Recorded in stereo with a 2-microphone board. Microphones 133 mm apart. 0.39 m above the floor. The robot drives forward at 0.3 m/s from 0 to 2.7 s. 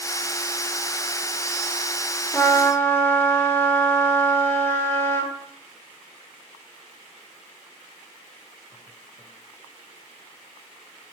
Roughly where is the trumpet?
Centre.